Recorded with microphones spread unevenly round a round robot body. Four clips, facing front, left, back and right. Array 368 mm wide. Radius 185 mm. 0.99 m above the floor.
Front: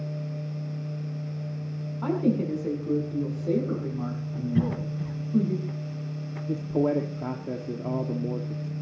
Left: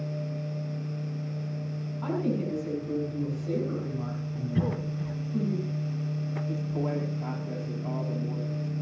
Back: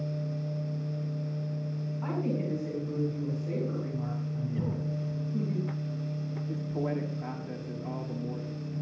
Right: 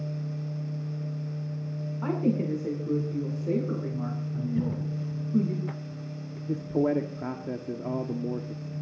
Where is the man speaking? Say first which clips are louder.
Right 7 dB, front 9 dB; 40° right, 1.9 m.